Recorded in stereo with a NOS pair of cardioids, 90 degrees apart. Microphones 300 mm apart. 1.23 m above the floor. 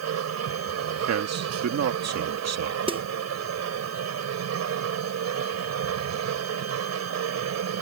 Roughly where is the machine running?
Ahead right.